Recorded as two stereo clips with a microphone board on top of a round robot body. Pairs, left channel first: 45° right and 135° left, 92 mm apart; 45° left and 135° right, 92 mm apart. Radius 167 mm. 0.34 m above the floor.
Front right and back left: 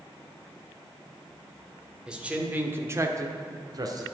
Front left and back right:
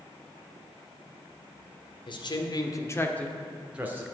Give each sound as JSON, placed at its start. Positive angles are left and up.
{"t": 2.1, "sound": "a man speaking", "azimuth_deg": 55, "distance_m": 2.0}